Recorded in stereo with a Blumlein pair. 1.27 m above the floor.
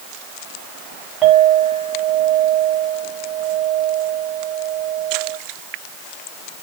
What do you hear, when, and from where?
1.2 s a clink: 25° right, 3.5 m